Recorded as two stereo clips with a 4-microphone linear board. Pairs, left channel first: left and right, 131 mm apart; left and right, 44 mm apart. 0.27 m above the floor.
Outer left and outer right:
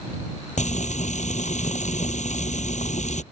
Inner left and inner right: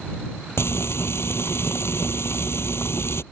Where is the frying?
70° left (ahead or behind).